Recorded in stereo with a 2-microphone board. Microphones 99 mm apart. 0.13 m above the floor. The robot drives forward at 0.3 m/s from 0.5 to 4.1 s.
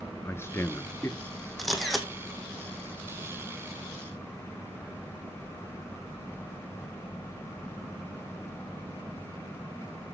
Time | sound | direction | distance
0.2 | a man speaking | 25° left (ahead or behind) | 1.7 m
1.6 | a camera shutter | centre (ahead or behind) | 2 m